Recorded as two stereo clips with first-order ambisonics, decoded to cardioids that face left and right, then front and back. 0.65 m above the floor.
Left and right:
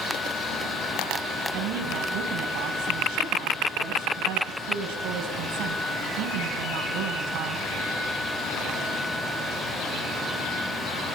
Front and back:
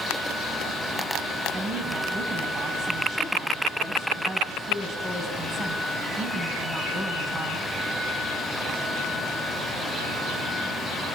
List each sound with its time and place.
1.5 s a woman speaking: 110° right, 4 m